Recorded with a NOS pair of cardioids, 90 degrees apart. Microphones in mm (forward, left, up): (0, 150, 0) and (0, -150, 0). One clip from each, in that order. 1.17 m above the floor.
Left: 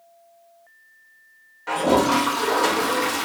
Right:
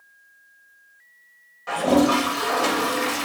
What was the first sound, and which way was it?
A toilet flushing, 5° left.